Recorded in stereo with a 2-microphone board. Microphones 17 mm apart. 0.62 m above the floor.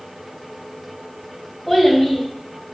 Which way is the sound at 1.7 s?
Centre (ahead or behind).